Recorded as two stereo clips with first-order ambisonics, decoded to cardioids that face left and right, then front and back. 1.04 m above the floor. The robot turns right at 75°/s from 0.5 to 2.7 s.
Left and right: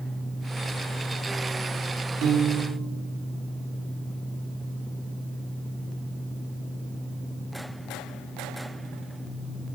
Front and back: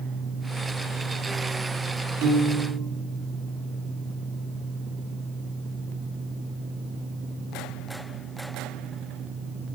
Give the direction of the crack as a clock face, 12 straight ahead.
I don't hear a crack.